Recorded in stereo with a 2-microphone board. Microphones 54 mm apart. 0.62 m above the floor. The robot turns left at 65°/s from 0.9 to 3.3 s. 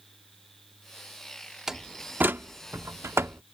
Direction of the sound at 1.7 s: 10° right (ahead or behind).